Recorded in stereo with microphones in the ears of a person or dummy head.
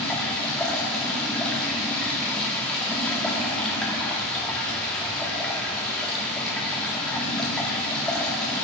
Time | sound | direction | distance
0.0 | running water | 5° left (ahead or behind) | 1.6 m